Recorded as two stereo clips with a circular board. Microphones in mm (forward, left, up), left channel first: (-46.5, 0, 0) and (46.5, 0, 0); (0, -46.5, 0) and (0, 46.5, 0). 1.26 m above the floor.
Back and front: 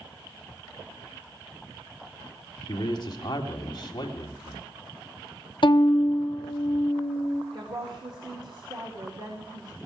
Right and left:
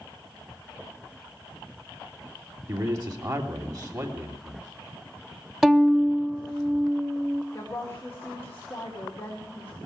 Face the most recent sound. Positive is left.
turn(degrees=-30)